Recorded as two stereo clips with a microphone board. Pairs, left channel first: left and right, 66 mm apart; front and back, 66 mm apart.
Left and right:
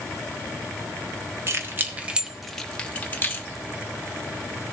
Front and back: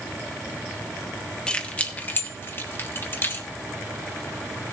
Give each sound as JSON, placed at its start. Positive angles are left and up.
{"t": 1.5, "sound": "keys jangling", "azimuth_deg": -70, "distance_m": 0.9}